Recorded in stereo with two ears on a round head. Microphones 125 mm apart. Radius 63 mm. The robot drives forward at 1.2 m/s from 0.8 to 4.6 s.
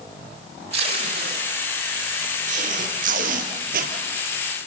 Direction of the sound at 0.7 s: 45° right (ahead or behind).